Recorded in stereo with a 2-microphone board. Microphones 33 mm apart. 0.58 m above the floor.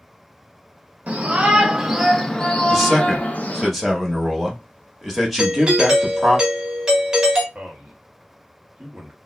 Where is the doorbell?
20° right (ahead or behind), 1.1 m.